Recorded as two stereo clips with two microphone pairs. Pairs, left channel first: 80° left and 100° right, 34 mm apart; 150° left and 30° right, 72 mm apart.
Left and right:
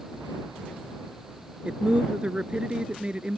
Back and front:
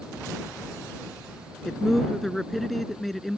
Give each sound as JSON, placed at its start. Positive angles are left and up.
{"t": 1.6, "sound": "a man speaking", "azimuth_deg": -125}